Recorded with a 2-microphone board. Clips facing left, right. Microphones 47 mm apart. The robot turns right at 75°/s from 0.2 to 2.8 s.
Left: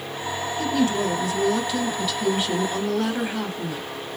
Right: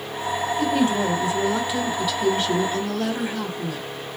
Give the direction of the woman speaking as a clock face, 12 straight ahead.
4 o'clock.